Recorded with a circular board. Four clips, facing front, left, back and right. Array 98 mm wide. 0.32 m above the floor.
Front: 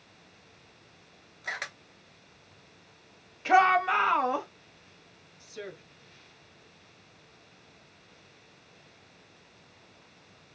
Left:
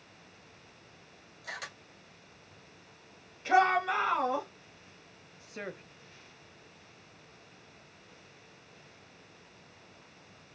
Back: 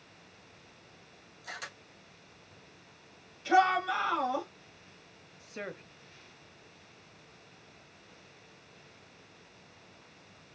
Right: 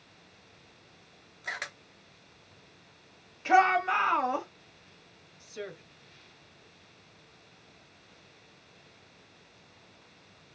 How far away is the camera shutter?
About 1.0 m.